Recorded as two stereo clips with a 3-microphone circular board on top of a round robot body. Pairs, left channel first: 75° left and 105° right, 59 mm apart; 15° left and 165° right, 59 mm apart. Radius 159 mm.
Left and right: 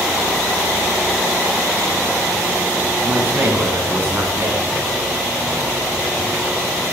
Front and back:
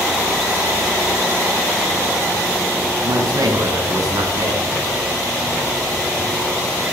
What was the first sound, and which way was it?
A man speaking, 170° right.